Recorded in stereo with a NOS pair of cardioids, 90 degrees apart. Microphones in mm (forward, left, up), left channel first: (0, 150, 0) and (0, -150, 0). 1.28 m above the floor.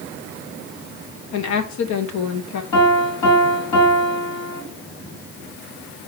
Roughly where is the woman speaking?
Left.